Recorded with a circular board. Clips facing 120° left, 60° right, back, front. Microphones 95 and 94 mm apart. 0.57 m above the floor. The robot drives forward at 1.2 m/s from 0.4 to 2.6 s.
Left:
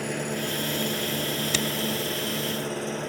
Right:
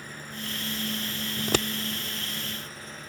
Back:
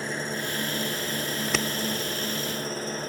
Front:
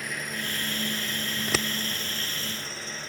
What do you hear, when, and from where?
0.0 s an engine running: 120° left; by 3.1 s 130° left
1.4 s scissors: 65° right; by 1.7 s 100° right